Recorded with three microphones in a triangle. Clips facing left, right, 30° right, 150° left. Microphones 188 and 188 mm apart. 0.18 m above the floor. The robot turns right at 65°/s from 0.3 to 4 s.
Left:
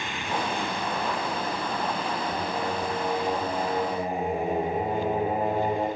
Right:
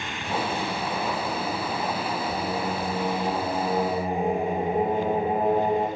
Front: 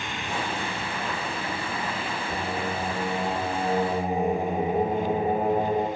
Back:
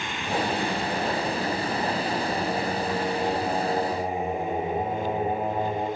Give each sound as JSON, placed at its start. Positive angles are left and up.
{"t": 2.3, "sound": "singing", "azimuth_deg": -140, "distance_m": 4.5}